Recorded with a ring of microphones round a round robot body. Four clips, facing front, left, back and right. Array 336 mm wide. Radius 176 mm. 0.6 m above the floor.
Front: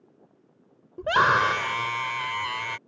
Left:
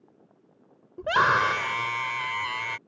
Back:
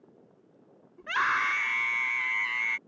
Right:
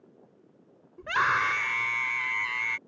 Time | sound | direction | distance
1.0 | a scream | 30° left | ?